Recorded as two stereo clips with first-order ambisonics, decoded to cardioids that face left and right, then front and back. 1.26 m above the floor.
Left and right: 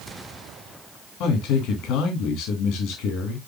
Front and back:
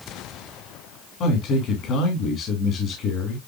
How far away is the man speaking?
About 3 m.